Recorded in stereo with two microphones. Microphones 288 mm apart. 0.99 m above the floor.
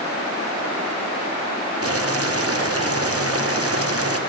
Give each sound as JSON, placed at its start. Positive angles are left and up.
{"t": 1.8, "sound": "boiling", "side_deg": -55, "distance_m": 0.7}